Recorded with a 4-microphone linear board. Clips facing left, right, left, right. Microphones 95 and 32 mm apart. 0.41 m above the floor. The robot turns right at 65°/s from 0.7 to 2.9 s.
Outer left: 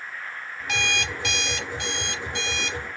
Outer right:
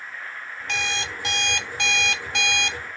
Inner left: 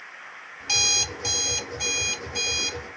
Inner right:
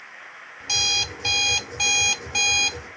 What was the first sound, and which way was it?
An alarm clock, 175° left.